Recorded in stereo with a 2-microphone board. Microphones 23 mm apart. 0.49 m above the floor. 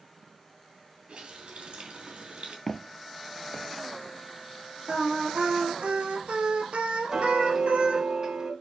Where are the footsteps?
20° left (ahead or behind), 0.6 m; by 3.7 s 40° left (ahead or behind), 1.2 m.